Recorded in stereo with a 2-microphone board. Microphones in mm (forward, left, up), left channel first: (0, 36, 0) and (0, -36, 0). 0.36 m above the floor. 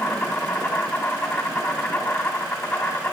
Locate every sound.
0.0 s an insect: 15° left (ahead or behind), 1.2 m